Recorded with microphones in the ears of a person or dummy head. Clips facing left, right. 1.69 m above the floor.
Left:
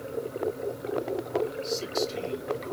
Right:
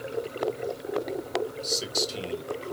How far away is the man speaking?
About 2 m.